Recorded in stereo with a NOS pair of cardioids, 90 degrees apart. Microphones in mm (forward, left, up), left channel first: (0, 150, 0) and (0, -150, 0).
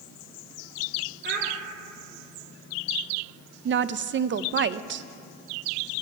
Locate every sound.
1.2 s a child speaking: 35° right, 1.9 m
3.6 s a woman speaking: 40° right, 0.5 m